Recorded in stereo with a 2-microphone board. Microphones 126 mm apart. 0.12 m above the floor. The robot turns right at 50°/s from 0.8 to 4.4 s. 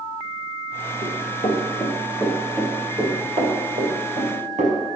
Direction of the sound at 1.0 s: 85° left.